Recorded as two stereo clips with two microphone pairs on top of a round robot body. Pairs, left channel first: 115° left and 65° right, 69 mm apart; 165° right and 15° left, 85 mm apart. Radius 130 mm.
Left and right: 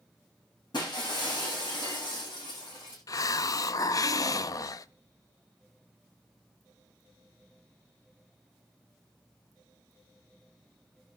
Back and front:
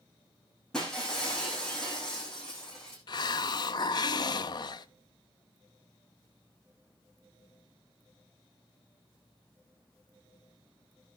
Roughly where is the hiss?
Behind left.